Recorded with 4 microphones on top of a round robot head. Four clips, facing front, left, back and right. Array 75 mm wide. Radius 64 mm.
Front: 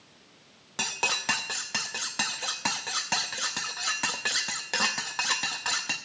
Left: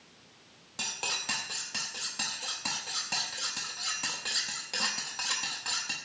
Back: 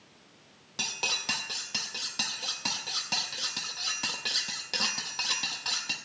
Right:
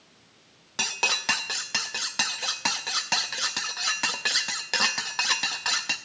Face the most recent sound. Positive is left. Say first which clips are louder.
# right 9 dB, front 5 dB
turn(degrees=-60)